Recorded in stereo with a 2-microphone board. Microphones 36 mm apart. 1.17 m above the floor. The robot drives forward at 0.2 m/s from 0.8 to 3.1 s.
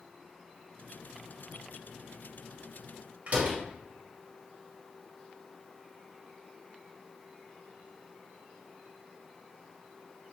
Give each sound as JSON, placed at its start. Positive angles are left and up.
{"t": 3.3, "sound": "a door slam", "side_deg": -40, "distance_m": 1.3}